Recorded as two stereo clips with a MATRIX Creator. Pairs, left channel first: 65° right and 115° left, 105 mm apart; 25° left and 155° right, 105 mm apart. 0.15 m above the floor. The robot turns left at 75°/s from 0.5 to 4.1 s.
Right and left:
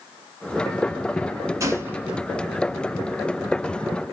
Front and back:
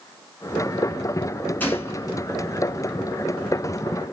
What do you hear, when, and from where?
1.6 s a gunshot: 85° left, 1.3 m; by 2.2 s 40° left, 1.3 m